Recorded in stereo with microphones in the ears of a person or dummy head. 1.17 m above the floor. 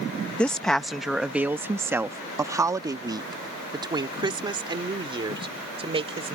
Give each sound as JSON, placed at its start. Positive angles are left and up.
{"t": 0.4, "sound": "a woman speaking", "side_deg": 10}